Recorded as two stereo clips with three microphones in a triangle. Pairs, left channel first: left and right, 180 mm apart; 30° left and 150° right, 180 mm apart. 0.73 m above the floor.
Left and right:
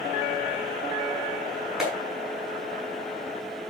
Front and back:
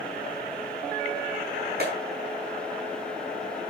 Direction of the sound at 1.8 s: 175° right.